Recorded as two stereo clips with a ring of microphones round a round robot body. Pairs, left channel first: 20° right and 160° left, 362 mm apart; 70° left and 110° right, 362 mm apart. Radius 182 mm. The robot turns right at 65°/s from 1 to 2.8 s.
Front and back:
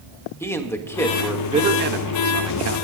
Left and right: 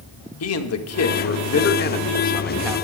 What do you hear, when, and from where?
0.4 s a man speaking: 55° left, 1.3 m; by 2.8 s 175° left, 1.3 m